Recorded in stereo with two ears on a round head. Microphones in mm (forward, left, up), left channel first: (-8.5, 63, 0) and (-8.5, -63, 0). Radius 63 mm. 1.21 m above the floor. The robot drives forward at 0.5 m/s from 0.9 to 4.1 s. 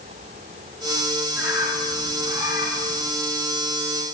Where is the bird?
15° right (ahead or behind), 5.5 m.